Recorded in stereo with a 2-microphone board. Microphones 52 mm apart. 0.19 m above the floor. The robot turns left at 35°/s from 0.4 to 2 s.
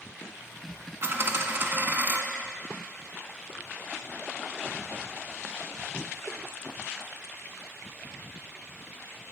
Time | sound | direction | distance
1.0 | a dropped coin | 95° right | 0.8 m